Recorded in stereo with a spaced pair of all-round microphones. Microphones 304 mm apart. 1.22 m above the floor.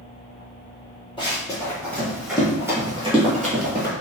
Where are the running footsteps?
15° left (ahead or behind), 1.9 m; by 3.9 s 35° right (ahead or behind), 1.4 m.